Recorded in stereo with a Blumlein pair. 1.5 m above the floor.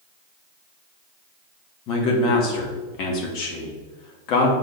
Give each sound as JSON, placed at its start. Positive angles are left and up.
{"t": 1.9, "sound": "a man speaking", "azimuth_deg": 40, "distance_m": 2.0}